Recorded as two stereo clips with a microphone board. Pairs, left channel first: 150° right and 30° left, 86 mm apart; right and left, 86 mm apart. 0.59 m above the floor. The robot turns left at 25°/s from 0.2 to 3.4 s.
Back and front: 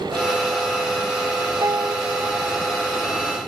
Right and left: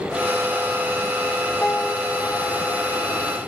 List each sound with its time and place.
1.6 s a piano: 15° right; by 2.8 s 45° right